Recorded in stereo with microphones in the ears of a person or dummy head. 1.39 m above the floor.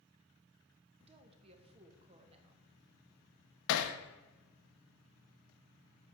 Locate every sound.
1.0 s a woman speaking: 35° right (ahead or behind), 1.1 m
3.7 s hammering: 70° left (ahead or behind), 0.8 m